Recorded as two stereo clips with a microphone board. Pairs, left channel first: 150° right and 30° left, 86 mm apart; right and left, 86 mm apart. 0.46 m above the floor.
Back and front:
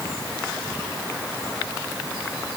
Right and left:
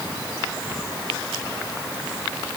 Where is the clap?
I don't hear a clap.